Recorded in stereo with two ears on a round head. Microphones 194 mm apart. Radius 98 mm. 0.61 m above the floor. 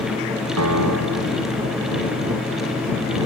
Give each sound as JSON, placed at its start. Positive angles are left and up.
{"t": 0.6, "sound": "a piano", "side_deg": -80}